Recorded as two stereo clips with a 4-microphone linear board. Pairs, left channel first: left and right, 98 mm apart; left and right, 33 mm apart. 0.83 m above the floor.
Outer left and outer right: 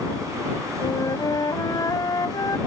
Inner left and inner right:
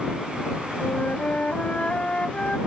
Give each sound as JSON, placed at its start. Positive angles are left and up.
{"t": 0.8, "sound": "a flute", "side_deg": 40}